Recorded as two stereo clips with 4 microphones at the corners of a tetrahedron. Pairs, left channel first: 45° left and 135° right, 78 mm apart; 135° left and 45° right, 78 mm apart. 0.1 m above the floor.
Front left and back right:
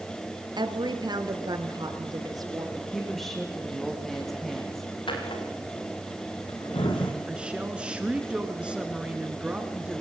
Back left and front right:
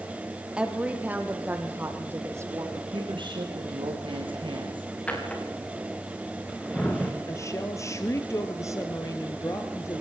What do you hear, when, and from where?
0.6 s a woman speaking: 120° right, 2 m; by 2.6 s 95° right, 2.5 m
2.8 s a woman speaking: 40° right, 5 m
5.1 s a drawer: 60° left, 3.5 m
7.3 s a woman speaking: 155° left, 1.6 m